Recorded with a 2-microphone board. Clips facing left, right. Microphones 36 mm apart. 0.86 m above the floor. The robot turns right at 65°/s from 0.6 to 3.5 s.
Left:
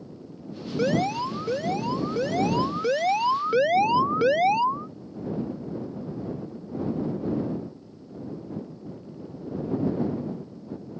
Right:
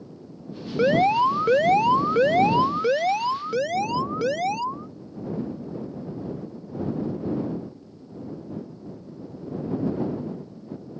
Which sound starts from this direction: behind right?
An alarm, at 0.8 s.